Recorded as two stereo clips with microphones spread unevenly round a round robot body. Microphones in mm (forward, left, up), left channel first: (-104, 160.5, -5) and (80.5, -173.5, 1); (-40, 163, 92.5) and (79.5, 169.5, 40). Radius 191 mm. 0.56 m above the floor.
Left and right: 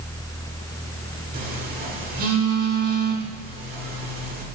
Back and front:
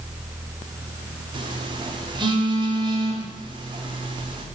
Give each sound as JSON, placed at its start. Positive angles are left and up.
{"t": 1.3, "sound": "a phone buzzing", "azimuth_deg": 5, "distance_m": 2.0}